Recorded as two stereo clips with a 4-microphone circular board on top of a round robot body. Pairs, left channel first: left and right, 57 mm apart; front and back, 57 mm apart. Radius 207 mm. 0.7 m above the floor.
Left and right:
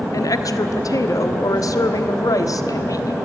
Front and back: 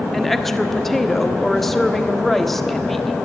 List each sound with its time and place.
0.1 s a woman speaking: 85° left, 1.6 m